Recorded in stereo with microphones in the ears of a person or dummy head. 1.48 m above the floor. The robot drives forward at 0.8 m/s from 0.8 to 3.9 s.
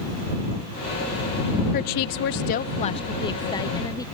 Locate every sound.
1.7 s a woman speaking: 40° left (ahead or behind); by 4.1 s 15° left (ahead or behind)